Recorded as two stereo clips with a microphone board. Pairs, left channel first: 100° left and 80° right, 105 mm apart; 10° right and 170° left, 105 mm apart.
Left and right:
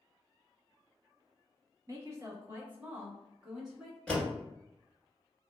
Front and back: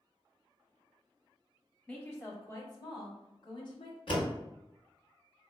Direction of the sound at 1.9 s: 70° right.